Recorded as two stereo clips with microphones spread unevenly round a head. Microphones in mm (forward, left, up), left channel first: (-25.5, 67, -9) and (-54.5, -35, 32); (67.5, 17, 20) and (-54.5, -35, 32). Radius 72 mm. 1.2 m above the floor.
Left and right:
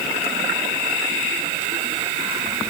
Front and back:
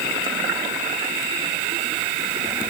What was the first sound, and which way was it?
Only background noise.